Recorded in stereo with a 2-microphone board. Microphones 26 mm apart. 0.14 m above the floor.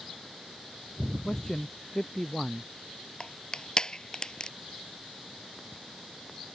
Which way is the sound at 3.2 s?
35° left (ahead or behind).